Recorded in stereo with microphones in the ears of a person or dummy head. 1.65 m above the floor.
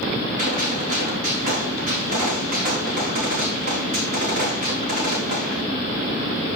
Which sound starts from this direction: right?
A gunshot, at 0.4 s.